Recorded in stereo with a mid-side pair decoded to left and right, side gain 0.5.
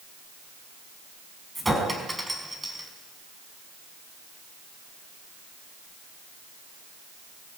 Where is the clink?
10° right, 5.5 m.